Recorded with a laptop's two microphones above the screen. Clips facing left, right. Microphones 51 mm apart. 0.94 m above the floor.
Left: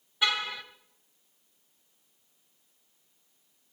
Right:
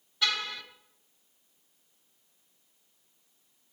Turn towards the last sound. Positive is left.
turn(degrees=15)  # may be behind; listen again after turning